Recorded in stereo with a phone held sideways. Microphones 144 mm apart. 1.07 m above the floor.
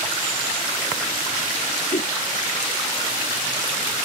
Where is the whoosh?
60° left (ahead or behind).